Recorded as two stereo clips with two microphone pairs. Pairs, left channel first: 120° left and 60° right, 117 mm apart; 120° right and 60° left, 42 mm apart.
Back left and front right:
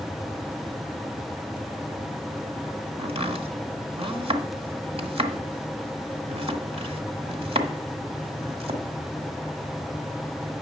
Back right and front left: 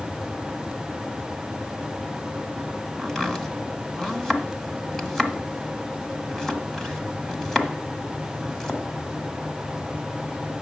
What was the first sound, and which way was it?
Chopping, 50° right.